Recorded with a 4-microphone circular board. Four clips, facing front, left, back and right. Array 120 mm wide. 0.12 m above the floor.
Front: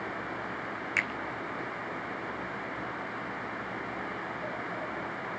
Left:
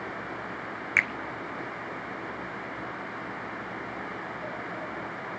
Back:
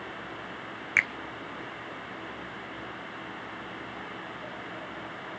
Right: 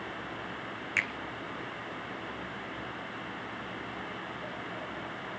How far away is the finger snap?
About 1.3 m.